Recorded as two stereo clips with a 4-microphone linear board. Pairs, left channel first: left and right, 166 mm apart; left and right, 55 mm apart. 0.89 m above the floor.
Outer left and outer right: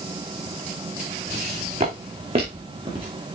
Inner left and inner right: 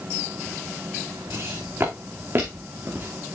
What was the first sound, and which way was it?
Footsteps, 40° right (ahead or behind).